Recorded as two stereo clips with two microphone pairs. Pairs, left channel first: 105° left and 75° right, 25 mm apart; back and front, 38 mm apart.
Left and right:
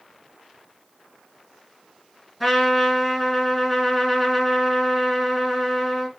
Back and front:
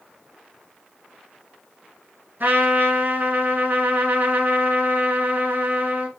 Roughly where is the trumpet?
Ahead.